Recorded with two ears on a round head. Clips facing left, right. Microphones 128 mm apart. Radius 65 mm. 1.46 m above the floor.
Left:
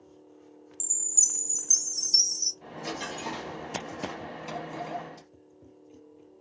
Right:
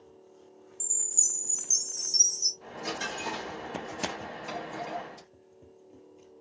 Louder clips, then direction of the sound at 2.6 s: Even; 25° left (ahead or behind).